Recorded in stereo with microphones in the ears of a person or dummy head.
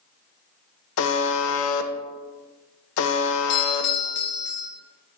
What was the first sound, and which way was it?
A buzzer, 75° left (ahead or behind).